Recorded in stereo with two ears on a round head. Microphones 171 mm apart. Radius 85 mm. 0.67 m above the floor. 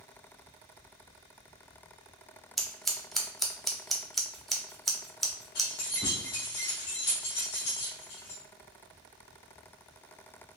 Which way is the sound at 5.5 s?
60° left (ahead or behind).